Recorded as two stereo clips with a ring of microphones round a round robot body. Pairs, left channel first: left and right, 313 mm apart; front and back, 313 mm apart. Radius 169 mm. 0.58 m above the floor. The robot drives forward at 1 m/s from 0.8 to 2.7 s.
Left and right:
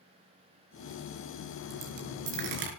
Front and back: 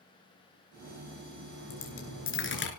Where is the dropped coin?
45° right, 5 m; by 2.7 s 55° right, 4.5 m.